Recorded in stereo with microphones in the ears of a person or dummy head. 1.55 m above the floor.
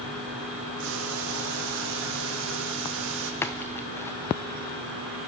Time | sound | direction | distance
0.8 | boiling | 60° right (ahead or behind) | 1.3 m
3.4 | a splash | 10° left (ahead or behind) | 0.7 m